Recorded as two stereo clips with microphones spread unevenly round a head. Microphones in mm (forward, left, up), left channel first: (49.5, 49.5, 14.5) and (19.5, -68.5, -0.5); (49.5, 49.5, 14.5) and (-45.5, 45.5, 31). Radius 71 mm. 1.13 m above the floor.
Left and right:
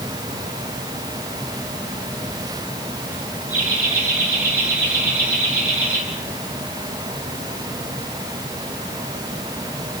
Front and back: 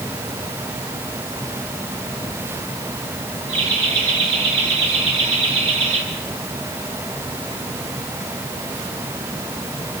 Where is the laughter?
175° right, 9 m; by 6.0 s straight behind, 11 m.